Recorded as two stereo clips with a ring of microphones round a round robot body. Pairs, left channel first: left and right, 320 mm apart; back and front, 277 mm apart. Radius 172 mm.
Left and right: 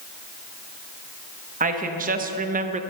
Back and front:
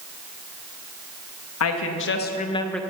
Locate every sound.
1.6 s a woman speaking: 155° right, 1.1 m; by 2.8 s 90° right, 0.6 m